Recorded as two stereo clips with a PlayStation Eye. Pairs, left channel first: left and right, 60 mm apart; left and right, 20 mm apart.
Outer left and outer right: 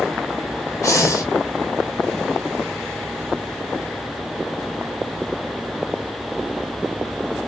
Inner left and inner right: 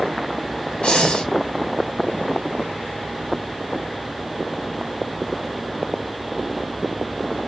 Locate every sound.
0.8 s breathing: 65° left (ahead or behind), 0.6 m